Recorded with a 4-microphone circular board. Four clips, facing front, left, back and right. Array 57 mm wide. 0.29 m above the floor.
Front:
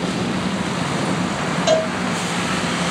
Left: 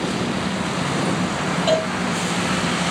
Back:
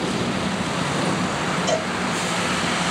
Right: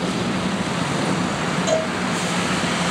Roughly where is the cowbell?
Ahead left.